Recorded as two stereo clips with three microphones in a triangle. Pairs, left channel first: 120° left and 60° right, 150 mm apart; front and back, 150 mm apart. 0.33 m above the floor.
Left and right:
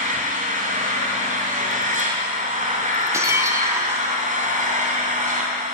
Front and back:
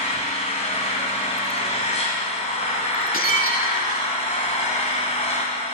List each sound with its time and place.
0.0 s an engine running: 40° right, 2 m
3.1 s breaking glass: 10° left, 0.9 m